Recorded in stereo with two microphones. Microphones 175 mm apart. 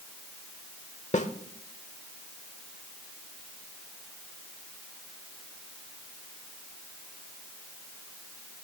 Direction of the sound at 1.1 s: 45° left (ahead or behind).